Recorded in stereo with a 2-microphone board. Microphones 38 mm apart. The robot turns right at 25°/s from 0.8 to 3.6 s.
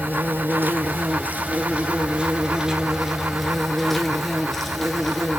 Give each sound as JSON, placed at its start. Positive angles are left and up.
{"t": 0.0, "sound": "an insect", "azimuth_deg": -65, "distance_m": 0.9}